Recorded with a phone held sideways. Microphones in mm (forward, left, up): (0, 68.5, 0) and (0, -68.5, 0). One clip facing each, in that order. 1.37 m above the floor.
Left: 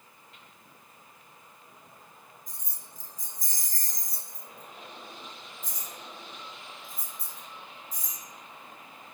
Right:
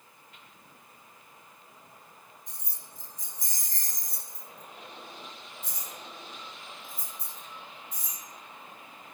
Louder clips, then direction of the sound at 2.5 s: Even; 65° right (ahead or behind).